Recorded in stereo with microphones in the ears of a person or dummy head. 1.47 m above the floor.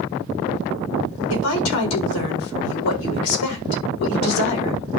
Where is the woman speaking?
85° left, 4.5 m.